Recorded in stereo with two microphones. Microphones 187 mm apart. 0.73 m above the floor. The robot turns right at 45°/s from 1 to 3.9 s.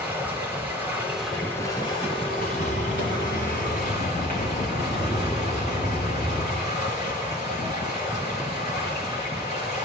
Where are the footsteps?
50° left (ahead or behind), 4.5 m; by 6.6 s 55° left (ahead or behind), 8.5 m.